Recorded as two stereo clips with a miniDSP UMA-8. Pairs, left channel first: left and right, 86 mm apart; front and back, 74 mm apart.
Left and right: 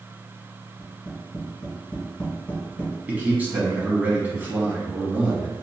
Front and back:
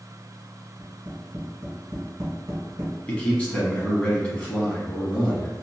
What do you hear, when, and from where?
0.8 s tapping: 155° left, 1.2 m
3.1 s a man speaking: 50° right, 1.0 m